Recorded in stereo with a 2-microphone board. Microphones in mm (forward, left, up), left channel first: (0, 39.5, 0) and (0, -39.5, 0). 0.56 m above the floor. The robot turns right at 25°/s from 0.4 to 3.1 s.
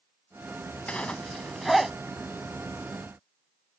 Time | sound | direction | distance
0.9 | a zipper | 15° left (ahead or behind) | ?